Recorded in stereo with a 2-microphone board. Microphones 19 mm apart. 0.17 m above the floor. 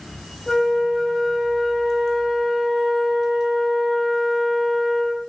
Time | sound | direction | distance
0.5 | a flute | 15° left (ahead or behind) | 7.5 m